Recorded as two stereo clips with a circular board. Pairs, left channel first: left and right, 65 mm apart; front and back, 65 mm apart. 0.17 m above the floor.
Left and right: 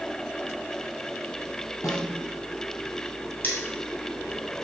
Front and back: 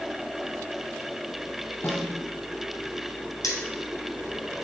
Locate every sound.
1.8 s a snare drum: 55° left, 1.9 m
3.4 s cutlery clinking: 30° left, 2.5 m